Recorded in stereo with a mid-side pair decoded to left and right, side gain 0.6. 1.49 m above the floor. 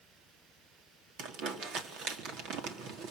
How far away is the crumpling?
About 4 m.